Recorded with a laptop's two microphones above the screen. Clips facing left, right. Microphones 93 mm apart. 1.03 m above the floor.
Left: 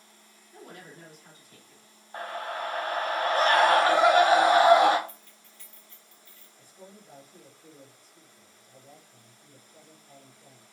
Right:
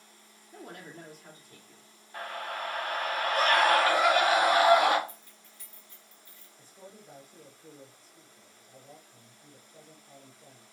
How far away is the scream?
About 0.7 m.